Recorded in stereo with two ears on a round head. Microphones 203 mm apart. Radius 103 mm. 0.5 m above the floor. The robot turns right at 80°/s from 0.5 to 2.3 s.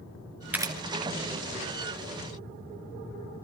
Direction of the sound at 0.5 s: 5° right (ahead or behind).